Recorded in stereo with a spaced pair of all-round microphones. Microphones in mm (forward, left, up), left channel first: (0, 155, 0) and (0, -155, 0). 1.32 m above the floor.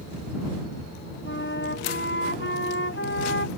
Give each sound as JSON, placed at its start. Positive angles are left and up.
{"t": 1.2, "sound": "a flute", "side_deg": 40}